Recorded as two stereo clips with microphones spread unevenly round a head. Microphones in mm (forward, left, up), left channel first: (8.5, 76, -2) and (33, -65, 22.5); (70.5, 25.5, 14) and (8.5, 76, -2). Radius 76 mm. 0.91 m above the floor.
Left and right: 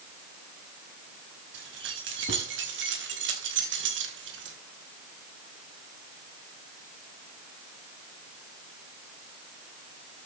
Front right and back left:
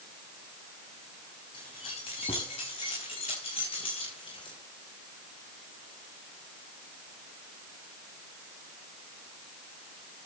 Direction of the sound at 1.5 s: 90° right.